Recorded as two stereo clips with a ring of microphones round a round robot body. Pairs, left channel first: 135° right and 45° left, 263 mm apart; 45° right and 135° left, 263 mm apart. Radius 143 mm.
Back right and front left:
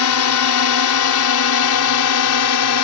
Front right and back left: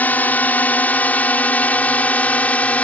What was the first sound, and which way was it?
A drone, 130° right.